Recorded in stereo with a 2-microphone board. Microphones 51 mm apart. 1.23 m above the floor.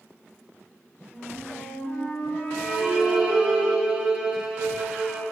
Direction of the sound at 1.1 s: 25° left (ahead or behind).